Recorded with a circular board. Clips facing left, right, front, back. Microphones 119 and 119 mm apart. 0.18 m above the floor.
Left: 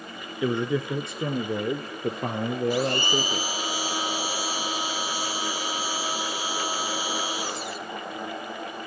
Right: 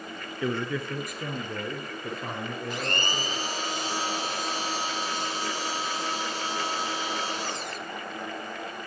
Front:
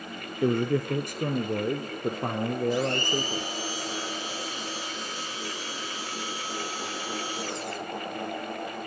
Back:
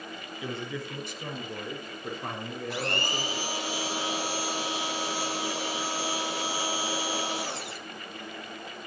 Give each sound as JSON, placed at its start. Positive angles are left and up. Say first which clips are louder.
{"t": 0.4, "sound": "a man speaking", "louder": "left 4 dB, front 12 dB", "azimuth_deg": 15, "distance_m": 2.0}
{"t": 2.7, "sound": "a blender", "louder": "left 7 dB, front 5 dB", "azimuth_deg": 170, "distance_m": 6.0}